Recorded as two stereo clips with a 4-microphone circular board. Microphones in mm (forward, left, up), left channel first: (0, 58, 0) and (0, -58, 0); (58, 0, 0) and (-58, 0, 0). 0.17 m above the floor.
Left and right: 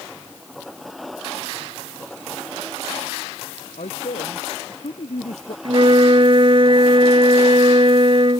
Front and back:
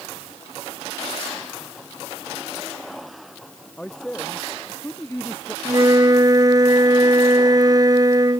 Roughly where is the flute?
Behind right.